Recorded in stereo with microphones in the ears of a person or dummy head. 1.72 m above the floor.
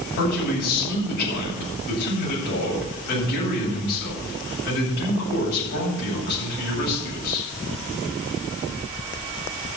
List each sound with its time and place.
0.2 s a man speaking: 50° left (ahead or behind), 9 m